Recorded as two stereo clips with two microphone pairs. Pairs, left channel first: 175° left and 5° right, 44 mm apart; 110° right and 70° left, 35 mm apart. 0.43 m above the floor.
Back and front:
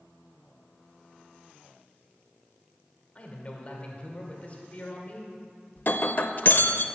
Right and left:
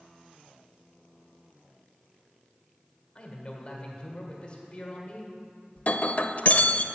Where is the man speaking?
145° right, 1.8 m.